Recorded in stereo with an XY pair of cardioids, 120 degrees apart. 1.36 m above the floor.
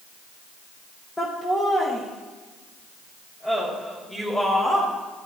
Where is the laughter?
15° left, 1.2 m; by 4.9 s 25° left, 4 m.